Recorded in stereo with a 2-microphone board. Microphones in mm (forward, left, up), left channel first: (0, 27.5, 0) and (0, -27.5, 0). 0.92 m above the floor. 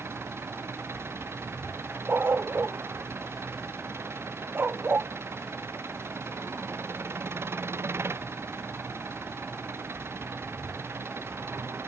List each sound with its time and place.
0.0 s an engine running: 55° right (ahead or behind)
2.1 s a dog barking: 40° right (ahead or behind)